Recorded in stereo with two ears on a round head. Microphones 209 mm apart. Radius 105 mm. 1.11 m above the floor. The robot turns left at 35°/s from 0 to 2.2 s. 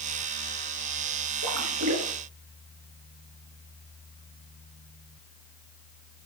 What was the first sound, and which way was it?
A splash, 65° right (ahead or behind).